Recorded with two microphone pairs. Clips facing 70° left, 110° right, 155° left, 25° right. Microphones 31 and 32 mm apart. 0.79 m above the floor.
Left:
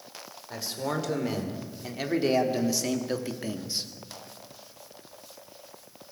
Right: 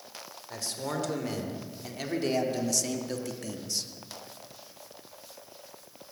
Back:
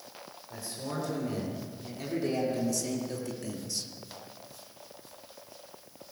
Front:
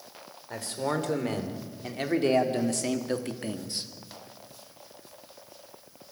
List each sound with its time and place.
0.5 s a man speaking: 5° right, 3.5 m; by 3.9 s 20° left, 1.5 m